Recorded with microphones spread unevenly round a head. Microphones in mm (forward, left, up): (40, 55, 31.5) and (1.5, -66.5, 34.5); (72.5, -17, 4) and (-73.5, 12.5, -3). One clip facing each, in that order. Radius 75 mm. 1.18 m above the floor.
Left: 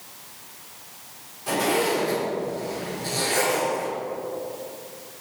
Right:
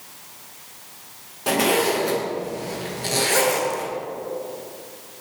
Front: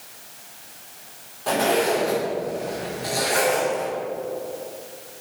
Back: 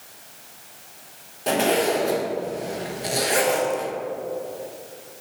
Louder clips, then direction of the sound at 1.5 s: Right 3 dB, even; 130° right.